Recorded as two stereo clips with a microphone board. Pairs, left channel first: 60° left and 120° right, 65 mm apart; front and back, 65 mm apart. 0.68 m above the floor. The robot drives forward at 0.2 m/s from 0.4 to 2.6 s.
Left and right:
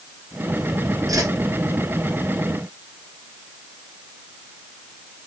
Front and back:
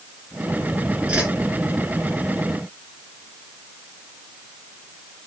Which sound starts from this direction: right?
A whoosh, at 1.1 s.